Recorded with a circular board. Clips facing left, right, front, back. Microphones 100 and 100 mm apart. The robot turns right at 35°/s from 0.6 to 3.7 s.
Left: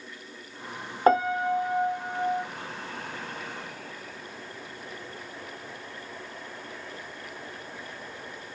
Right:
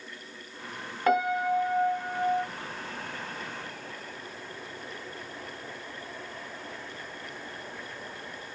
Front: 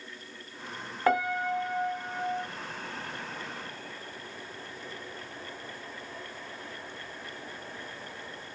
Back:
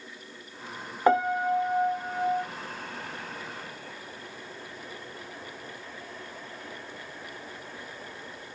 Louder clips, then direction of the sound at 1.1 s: Left 3 dB, back 4 dB; 115° left.